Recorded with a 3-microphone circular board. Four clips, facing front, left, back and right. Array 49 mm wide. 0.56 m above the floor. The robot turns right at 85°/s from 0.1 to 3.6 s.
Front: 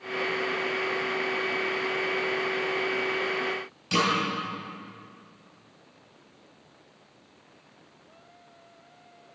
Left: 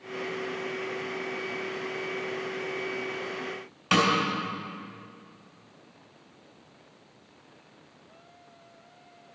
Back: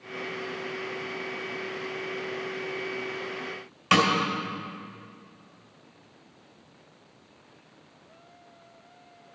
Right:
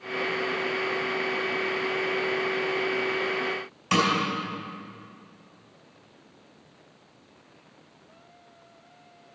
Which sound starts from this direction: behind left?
A snare drum, at 3.9 s.